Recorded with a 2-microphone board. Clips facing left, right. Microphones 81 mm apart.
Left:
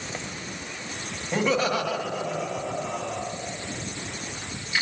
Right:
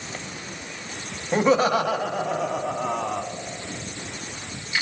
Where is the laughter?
30° right (ahead or behind), 1.1 m; by 3.2 s 60° right (ahead or behind), 2.0 m.